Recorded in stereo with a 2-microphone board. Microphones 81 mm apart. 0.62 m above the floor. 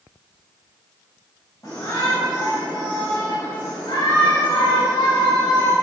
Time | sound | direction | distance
1.6 | a shout | 45° left (ahead or behind) | 3 m